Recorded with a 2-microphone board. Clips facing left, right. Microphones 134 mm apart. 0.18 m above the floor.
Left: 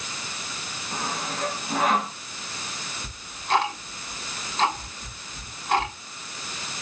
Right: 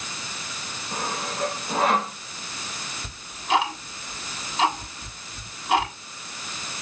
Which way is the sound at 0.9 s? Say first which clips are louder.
Right 1 dB; 30° right (ahead or behind).